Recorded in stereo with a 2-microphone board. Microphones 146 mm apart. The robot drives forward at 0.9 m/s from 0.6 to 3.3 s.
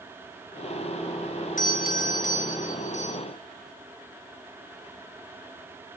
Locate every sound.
1.6 s a doorbell: 65° left (ahead or behind), 4 m; by 3.2 s 55° left (ahead or behind), 4.5 m